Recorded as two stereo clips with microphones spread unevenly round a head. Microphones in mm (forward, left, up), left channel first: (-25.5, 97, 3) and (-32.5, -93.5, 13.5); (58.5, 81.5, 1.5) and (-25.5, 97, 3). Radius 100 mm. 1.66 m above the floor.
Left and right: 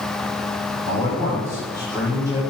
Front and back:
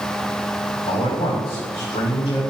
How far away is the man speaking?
About 3.5 m.